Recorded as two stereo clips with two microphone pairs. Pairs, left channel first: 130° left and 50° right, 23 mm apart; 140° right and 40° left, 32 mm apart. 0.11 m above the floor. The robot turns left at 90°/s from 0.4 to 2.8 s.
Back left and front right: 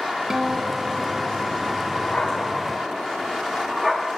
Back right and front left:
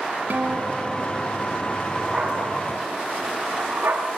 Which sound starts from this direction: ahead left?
A guitar, at 0.3 s.